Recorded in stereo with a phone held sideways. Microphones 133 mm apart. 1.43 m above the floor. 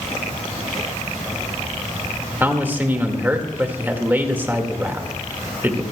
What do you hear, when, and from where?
2.4 s a man speaking: 15° right (ahead or behind), 1.9 m